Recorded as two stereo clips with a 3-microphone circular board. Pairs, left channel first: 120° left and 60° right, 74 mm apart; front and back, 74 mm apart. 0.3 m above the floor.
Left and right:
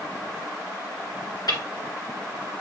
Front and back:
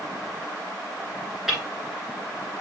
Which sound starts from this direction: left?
Ticking, at 1.5 s.